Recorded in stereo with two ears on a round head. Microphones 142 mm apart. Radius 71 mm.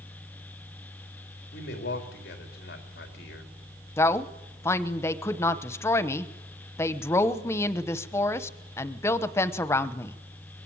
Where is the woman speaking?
15° left (ahead or behind), 1.0 m.